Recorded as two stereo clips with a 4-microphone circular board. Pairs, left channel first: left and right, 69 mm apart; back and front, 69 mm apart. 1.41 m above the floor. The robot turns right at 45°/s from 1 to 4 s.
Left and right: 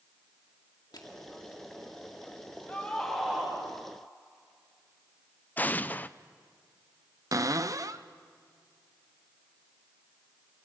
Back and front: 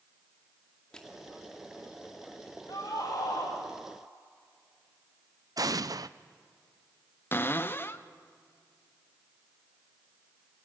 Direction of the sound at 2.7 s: 160° left.